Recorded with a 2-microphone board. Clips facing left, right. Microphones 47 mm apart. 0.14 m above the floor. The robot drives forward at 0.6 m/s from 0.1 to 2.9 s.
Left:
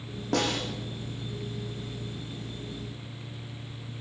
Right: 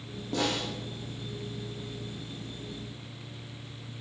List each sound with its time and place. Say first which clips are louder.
0.3 s a snare drum: left 2 dB; 65° left (ahead or behind), 8.5 m